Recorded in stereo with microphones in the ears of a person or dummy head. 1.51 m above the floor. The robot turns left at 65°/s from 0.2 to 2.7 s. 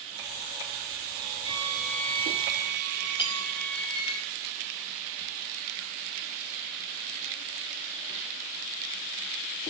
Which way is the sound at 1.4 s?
155° right.